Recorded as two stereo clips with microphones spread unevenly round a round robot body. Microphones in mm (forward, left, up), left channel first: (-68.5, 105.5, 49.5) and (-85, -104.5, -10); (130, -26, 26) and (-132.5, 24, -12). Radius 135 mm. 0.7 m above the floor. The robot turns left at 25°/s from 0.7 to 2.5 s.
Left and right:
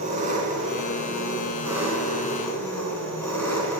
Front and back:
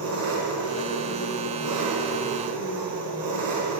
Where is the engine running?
150° right, 4 m; by 3.8 s 165° left, 4 m.